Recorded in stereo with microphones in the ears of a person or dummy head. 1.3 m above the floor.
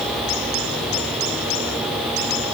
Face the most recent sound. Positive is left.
No sound to turn to.